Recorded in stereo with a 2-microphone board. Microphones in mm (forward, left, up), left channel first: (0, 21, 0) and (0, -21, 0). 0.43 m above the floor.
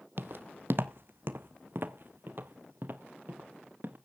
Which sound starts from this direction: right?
Footsteps, at 0.2 s.